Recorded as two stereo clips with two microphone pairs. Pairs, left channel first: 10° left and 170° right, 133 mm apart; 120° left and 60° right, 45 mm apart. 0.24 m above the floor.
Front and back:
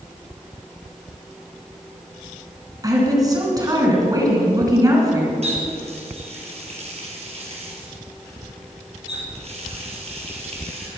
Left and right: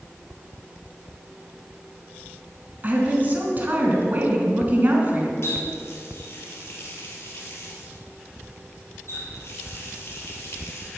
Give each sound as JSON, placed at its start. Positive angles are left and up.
{"t": 2.8, "sound": "a woman speaking", "azimuth_deg": -110, "distance_m": 3.0}
{"t": 5.4, "sound": "a running tap", "azimuth_deg": 150, "distance_m": 3.0}